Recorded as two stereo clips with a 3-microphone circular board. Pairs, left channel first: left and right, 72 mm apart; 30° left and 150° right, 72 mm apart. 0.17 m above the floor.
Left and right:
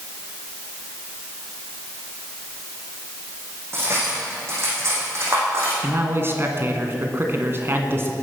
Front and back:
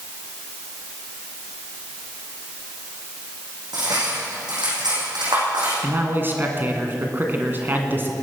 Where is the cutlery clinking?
140° right, 6 m.